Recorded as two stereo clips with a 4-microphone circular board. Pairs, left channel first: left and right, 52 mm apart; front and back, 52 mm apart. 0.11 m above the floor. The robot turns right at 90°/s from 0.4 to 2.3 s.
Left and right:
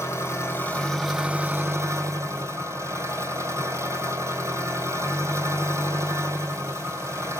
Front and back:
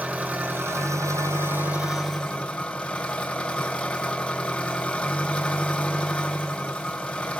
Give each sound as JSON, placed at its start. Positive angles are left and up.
{"t": 0.0, "sound": "an engine running", "azimuth_deg": 115, "distance_m": 1.7}